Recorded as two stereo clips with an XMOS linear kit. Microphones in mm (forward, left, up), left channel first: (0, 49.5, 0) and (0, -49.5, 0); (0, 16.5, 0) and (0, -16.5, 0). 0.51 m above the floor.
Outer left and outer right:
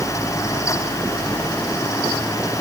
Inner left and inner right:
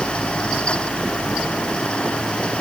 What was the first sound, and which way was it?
Only background noise.